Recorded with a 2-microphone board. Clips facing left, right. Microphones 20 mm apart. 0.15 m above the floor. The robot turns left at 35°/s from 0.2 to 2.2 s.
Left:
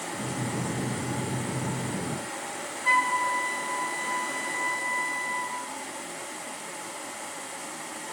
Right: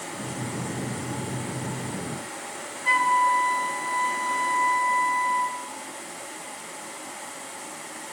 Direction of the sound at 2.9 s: Centre (ahead or behind).